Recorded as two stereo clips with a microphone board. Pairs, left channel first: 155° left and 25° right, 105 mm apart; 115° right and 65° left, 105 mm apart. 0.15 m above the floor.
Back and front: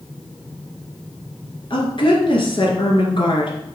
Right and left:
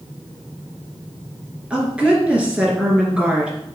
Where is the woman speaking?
145° left, 2.5 m.